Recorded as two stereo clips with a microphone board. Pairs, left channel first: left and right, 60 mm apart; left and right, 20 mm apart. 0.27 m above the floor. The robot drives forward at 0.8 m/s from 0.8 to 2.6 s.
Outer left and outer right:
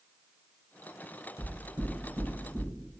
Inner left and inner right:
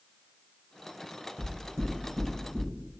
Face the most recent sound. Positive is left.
turn(degrees=-20)  # may be behind; listen again after turning